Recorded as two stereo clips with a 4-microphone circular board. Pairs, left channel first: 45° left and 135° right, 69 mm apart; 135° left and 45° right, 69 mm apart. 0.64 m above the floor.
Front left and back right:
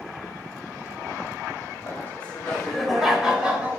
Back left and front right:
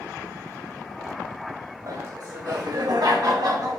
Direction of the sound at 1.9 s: 20° right.